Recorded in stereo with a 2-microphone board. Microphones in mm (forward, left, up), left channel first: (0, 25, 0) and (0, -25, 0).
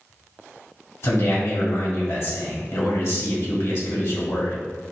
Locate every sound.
1.0 s a man speaking: 60° left (ahead or behind), 1.6 m